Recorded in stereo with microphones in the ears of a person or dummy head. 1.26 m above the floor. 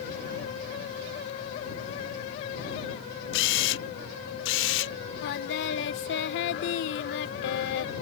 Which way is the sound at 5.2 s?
60° left (ahead or behind).